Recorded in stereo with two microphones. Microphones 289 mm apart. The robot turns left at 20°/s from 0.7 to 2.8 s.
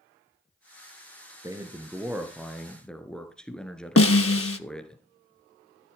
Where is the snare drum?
55° left (ahead or behind), 0.6 m.